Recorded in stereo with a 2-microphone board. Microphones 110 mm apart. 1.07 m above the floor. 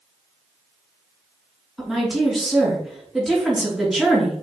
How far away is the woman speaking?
About 2.5 m.